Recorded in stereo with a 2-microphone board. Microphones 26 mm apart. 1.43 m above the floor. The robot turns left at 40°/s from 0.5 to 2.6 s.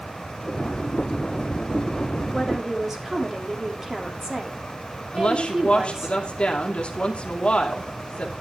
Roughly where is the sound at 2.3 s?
Centre.